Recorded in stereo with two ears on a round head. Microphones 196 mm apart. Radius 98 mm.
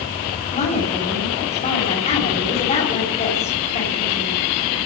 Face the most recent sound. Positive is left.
turn(degrees=35)  # may be behind; listen again after turning